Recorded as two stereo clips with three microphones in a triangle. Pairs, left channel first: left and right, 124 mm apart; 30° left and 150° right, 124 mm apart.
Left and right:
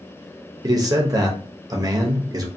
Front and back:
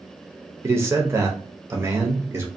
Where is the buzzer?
No buzzer in this recording.